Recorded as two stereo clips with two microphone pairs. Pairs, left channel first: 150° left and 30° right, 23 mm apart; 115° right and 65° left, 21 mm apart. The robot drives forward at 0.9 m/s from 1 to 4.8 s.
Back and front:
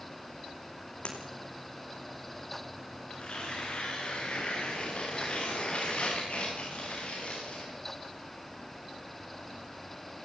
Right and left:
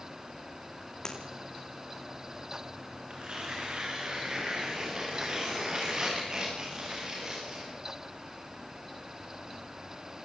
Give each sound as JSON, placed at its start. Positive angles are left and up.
{"t": 1.1, "sound": "breaking glass", "azimuth_deg": -175, "distance_m": 4.5}
{"t": 3.1, "sound": "tearing paper", "azimuth_deg": 105, "distance_m": 8.0}